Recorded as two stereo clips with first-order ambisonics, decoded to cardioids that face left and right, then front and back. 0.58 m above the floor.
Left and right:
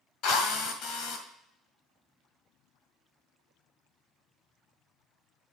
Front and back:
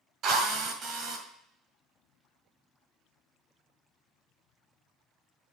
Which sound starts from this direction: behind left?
A drill, at 0.2 s.